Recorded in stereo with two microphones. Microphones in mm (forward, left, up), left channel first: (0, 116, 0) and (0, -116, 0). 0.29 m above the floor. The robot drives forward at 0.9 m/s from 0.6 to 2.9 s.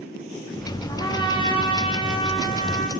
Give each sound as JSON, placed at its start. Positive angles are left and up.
{"t": 0.9, "sound": "a trumpet", "side_deg": 15, "distance_m": 3.0}